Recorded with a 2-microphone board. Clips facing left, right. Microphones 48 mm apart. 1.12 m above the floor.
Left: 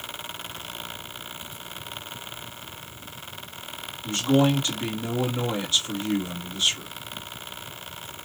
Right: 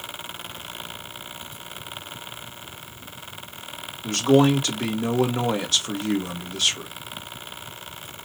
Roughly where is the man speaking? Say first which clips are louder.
Right 4 dB; right.